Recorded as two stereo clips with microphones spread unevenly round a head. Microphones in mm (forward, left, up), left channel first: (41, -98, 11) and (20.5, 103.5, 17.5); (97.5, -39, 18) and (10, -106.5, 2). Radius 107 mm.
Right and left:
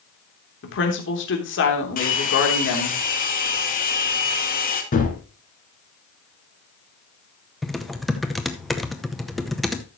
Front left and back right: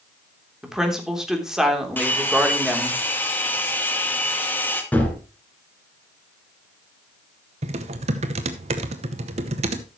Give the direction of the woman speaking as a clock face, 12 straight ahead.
2 o'clock.